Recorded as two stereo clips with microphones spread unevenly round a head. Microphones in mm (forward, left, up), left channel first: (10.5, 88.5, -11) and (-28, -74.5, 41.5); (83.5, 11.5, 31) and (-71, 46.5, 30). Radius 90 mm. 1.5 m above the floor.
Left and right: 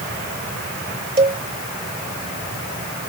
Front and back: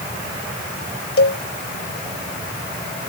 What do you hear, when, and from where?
1.2 s a cowbell: 45° right